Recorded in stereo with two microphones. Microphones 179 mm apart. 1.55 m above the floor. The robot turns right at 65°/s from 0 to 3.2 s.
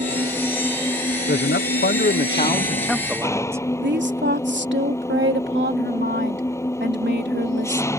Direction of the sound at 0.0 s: 45° right.